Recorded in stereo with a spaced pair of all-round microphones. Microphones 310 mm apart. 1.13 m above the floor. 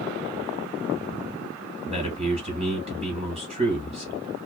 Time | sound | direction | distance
1.9 | a man speaking | 20° right (ahead or behind) | 1.6 m